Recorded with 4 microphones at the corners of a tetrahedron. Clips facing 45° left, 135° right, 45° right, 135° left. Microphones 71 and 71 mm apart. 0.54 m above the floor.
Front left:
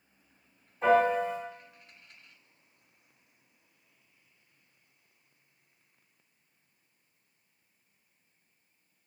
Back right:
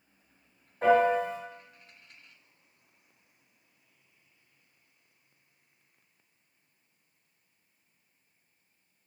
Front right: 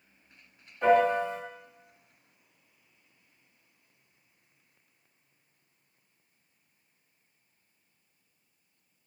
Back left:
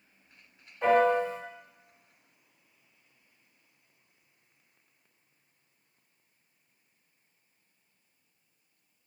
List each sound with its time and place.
0.8 s a piano: 140° right, 1.5 m